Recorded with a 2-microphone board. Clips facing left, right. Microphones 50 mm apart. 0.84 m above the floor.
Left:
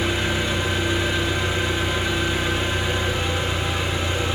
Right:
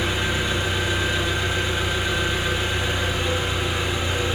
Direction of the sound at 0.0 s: Centre (ahead or behind).